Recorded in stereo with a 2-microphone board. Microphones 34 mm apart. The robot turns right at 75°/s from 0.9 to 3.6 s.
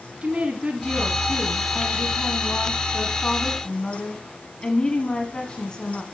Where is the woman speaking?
55° right, 1.6 m; by 6.0 s 145° left, 1.6 m.